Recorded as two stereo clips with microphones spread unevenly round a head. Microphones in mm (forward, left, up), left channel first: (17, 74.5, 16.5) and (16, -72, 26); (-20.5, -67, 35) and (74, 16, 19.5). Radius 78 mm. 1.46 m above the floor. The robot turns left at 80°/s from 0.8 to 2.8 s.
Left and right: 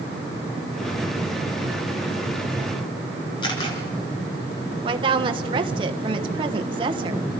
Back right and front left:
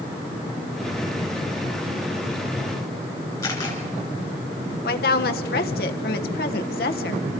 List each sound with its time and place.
3.4 s a camera shutter: 155° left, 3.5 m
4.8 s a woman speaking: 150° right, 1.2 m